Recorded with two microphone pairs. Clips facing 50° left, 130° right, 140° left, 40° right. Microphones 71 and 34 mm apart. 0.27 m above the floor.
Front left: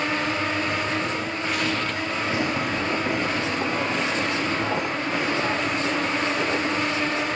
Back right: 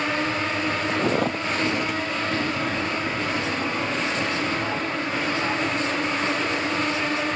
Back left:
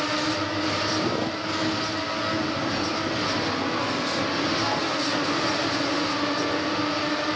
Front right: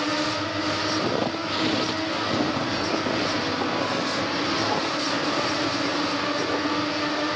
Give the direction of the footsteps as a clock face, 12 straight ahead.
4 o'clock.